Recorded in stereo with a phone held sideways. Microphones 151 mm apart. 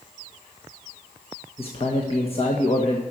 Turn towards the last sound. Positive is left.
turn(degrees=40)  # may be behind; listen again after turning